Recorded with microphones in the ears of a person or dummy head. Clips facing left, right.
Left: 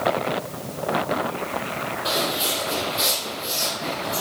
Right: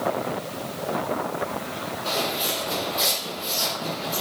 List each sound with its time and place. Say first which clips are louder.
2.0 s footsteps: left 1 dB; 15° left (ahead or behind), 2.5 m; by 4.2 s 20° right (ahead or behind), 2.5 m